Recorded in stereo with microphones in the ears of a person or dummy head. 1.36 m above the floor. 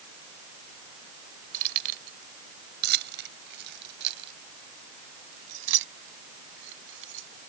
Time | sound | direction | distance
1.5 | keys jangling | 45° right (ahead or behind) | ?